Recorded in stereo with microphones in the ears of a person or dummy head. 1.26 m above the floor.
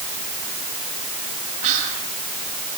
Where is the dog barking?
No dog barking in this recording.